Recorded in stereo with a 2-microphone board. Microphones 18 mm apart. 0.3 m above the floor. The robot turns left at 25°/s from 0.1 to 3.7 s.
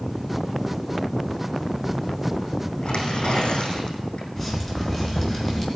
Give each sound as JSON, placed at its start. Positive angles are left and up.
{"t": 2.8, "sound": "tearing paper", "side_deg": 70, "distance_m": 5.0}
{"t": 4.4, "sound": "dripping", "side_deg": 20, "distance_m": 3.5}